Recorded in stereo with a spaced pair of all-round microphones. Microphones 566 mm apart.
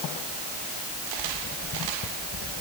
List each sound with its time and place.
Only background noise.